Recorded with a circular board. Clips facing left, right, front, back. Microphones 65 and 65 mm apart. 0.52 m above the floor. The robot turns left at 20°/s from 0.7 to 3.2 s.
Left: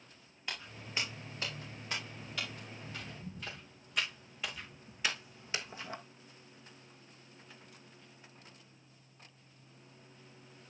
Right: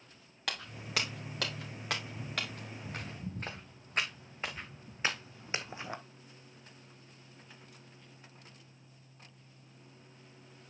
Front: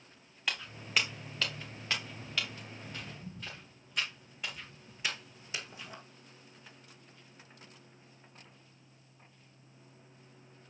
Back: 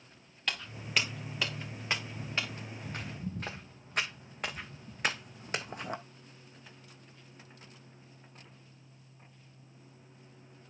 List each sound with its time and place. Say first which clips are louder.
0.5 s footsteps: right 5 dB, even; 85° right, 3.5 m; by 6.0 s 160° right, 1.1 m